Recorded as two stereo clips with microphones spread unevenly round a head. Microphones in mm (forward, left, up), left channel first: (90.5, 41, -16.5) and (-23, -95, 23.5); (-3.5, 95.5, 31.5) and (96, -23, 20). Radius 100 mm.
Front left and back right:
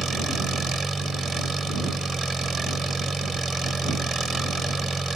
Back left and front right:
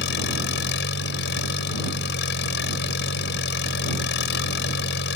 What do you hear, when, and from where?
0.0 s an engine running: 140° left